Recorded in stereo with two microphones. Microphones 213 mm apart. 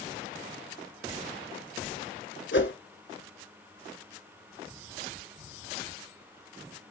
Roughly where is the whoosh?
Left.